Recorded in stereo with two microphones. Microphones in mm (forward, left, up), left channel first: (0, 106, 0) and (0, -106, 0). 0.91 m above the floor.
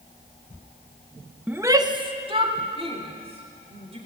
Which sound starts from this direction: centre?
A shout, at 1.5 s.